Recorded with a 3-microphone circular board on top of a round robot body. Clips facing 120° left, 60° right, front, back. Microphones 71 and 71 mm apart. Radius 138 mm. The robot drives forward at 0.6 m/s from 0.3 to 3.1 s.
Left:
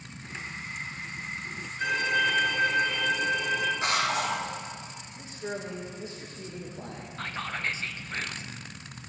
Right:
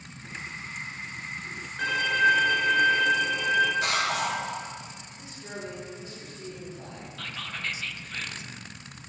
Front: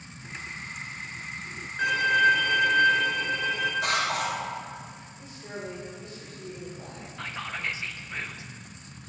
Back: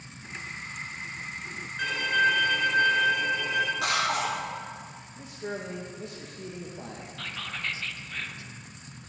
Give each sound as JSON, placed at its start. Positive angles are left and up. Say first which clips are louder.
{"t": 1.8, "sound": "a violin", "louder": "right 3 dB, front 3 dB", "azimuth_deg": -75, "distance_m": 1.9}
{"t": 3.8, "sound": "a cough", "louder": "even, even", "azimuth_deg": -175, "distance_m": 3.0}
{"t": 5.2, "sound": "a man speaking", "louder": "left 4 dB, back 4 dB", "azimuth_deg": 175, "distance_m": 1.4}
{"t": 7.2, "sound": "whispering", "louder": "left 4 dB, front 3 dB", "azimuth_deg": 65, "distance_m": 0.8}